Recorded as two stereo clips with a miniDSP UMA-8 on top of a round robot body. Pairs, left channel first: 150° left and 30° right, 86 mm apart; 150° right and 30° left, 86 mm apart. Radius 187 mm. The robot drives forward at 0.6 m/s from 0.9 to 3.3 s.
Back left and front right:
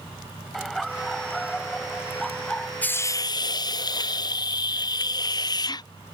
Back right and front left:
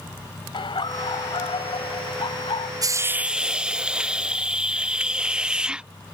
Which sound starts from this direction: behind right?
Laughter, at 0.5 s.